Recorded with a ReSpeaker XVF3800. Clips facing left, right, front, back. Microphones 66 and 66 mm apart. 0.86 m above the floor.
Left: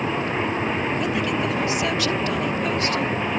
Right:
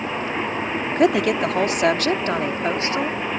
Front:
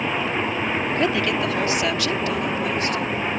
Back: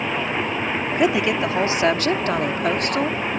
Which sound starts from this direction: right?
A woman speaking, at 0.9 s.